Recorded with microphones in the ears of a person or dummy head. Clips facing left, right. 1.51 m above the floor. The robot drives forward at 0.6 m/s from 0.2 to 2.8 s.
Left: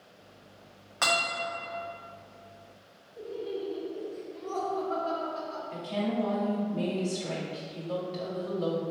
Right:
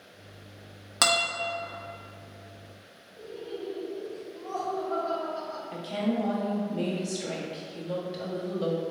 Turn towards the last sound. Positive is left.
turn(degrees=-15)  # may be behind; listen again after turning